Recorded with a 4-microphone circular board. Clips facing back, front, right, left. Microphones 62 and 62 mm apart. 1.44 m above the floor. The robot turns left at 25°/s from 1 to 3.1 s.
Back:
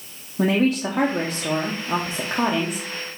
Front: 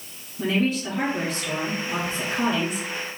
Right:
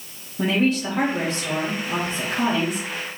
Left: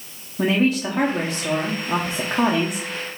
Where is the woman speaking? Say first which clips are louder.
Back 4 dB, left 1 dB; 170° left, 0.8 m; by 2.9 s 125° left, 0.8 m.